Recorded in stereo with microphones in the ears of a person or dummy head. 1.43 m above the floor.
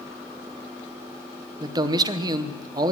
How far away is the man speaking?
About 0.8 m.